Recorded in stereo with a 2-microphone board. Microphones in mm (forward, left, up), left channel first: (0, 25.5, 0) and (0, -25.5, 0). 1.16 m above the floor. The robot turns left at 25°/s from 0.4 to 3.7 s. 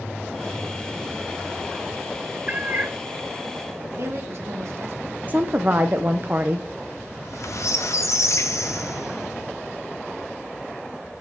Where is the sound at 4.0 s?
60° right (ahead or behind), 1.8 m.